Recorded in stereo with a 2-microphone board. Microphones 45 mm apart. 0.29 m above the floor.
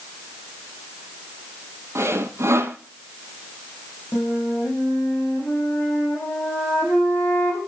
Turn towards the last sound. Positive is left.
turn(degrees=50)  # may be behind; listen again after turning